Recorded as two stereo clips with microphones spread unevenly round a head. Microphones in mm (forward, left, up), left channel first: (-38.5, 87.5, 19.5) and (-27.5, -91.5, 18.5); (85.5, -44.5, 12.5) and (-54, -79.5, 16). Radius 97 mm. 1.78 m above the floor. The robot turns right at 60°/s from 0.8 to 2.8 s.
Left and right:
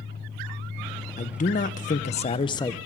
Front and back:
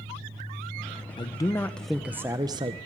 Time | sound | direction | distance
1.2 | a man speaking | 65° left | 0.9 m